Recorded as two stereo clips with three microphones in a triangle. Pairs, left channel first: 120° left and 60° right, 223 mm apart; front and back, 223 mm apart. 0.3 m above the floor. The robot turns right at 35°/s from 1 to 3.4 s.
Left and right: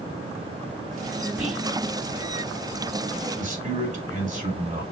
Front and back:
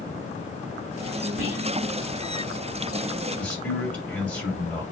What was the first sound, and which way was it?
Whispering, 145° right.